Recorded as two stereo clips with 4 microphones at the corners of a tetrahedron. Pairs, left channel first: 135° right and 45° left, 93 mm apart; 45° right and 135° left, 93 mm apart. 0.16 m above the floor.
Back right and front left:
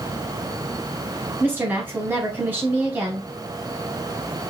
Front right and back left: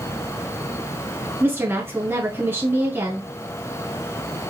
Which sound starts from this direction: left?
A woman speaking, at 1.4 s.